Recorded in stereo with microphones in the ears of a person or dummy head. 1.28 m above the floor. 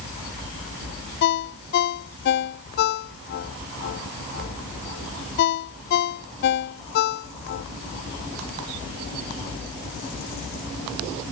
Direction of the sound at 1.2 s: 50° left (ahead or behind).